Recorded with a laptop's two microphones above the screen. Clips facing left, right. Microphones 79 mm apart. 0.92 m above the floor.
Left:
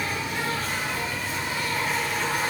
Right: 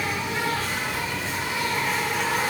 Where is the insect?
85° right, 0.8 m.